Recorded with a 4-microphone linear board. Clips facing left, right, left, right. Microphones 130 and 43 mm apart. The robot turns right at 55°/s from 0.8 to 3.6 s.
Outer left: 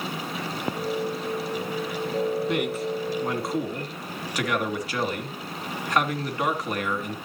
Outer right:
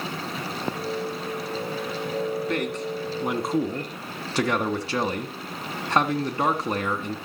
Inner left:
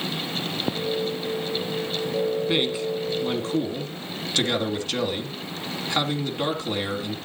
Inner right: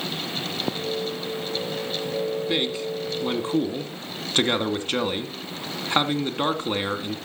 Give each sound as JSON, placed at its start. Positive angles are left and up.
{"t": 2.5, "sound": "a man speaking", "azimuth_deg": 160, "distance_m": 2.5}